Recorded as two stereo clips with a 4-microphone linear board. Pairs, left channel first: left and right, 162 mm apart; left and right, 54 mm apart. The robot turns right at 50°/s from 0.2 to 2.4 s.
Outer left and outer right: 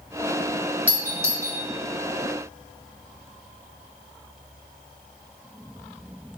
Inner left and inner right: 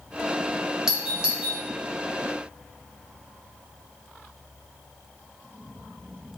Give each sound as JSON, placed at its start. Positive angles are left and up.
{"t": 0.9, "sound": "a doorbell", "side_deg": -10, "distance_m": 0.9}